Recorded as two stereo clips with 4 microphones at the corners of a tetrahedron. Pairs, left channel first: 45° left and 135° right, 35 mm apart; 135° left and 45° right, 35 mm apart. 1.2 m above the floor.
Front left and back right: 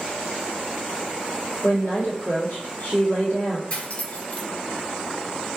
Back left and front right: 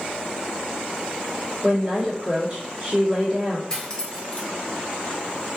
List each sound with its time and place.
1.6 s a woman speaking: 30° left, 1.4 m
3.7 s cutlery clinking: 70° left, 0.6 m